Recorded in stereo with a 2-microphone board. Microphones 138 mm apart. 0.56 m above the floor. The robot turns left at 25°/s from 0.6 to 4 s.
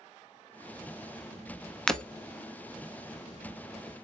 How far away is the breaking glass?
About 0.5 m.